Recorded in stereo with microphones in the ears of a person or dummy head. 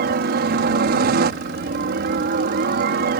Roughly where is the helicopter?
Right.